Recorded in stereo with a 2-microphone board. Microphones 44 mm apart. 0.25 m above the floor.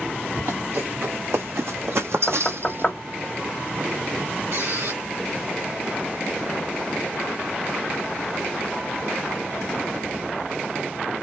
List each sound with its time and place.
0.4 s running footsteps: 60° right (ahead or behind), 1.5 m; by 2.9 s 50° right (ahead or behind), 0.5 m
2.3 s knocking: 20° left (ahead or behind), 0.9 m
4.5 s a squeak: 85° right, 2 m